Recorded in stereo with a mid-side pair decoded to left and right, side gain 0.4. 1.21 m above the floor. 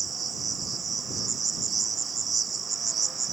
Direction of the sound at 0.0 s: 40° right.